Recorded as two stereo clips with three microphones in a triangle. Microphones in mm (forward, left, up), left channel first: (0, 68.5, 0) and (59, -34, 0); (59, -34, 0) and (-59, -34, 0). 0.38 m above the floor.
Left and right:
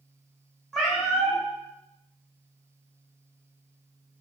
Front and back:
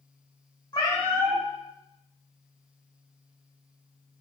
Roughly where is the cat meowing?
Ahead left.